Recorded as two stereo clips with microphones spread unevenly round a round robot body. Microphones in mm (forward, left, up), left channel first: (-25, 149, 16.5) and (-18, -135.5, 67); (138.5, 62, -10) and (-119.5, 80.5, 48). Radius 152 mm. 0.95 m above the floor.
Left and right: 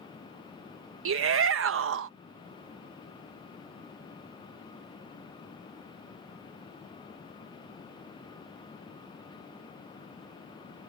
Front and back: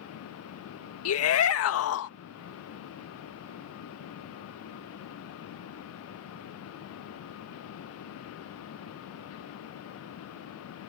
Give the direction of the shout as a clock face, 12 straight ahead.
1 o'clock.